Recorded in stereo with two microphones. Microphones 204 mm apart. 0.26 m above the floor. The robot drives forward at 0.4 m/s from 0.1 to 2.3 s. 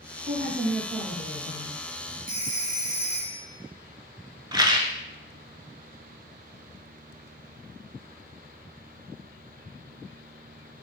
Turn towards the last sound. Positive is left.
turn(degrees=-20)  # may be behind; listen again after turning